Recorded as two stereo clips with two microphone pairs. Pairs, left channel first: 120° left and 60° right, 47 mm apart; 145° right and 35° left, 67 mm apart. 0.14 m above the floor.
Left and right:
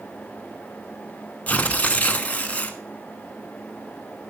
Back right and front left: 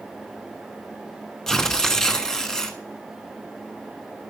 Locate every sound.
1.5 s tearing paper: 135° left, 1.2 m